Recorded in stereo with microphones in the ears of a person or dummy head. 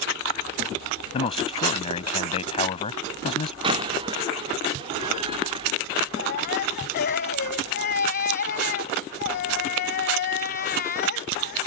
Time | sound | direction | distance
1.1 | a man speaking | 30° left (ahead or behind) | ?
3.6 | a door slam | 30° right (ahead or behind) | ?
6.2 | a baby crying | 50° left (ahead or behind) | ?